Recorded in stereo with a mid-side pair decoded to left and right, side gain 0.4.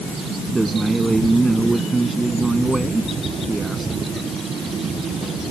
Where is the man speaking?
25° right.